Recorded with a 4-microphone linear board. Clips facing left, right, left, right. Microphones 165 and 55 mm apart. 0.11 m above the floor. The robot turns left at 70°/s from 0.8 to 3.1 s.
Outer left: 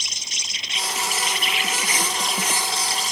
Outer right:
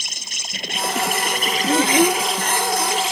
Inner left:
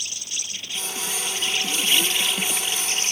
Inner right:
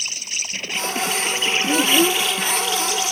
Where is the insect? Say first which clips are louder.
Outer right 3 dB, inner right 5 dB; 75° right; by 3.1 s 125° left.